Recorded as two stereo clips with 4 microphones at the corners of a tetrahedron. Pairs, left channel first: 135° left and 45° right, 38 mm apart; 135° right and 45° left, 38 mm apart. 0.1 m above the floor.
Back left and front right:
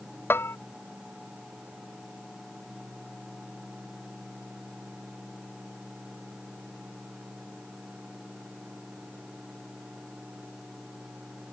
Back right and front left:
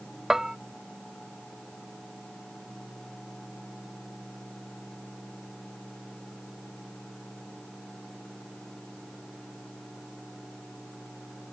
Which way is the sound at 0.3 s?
125° left.